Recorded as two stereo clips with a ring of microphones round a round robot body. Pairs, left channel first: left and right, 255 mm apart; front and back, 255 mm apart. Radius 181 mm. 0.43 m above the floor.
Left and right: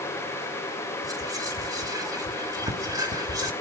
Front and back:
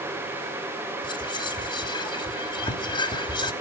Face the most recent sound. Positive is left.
turn(degrees=-40)